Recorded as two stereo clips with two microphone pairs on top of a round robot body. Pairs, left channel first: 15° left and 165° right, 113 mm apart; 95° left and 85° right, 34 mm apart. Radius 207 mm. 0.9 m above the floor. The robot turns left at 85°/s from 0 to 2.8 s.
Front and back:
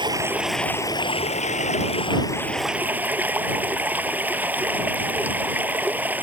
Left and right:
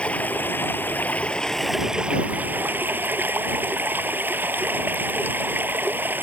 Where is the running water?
150° left; by 6.2 s 85° right.